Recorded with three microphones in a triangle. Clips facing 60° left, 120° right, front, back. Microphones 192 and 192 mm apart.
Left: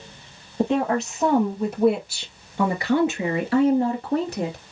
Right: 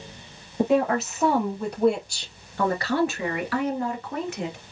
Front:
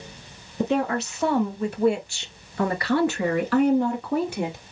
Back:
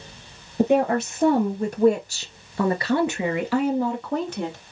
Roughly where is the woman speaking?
Behind left.